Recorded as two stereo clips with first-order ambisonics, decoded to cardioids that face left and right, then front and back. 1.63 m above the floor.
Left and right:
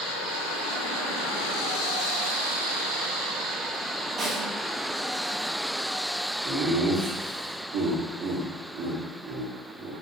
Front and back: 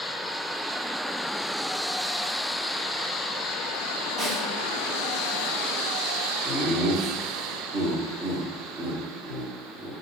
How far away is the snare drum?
About 1.0 m.